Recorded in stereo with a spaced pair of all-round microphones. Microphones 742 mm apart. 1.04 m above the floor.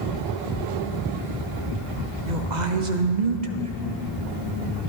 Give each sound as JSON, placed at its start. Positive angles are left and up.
{"t": 2.3, "sound": "a woman speaking", "side_deg": -75, "distance_m": 1.0}